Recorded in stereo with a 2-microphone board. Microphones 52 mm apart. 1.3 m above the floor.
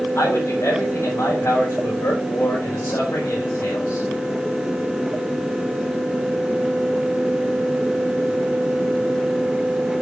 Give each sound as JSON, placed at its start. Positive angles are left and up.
{"t": 0.1, "sound": "a man speaking", "side_deg": 60, "distance_m": 5.5}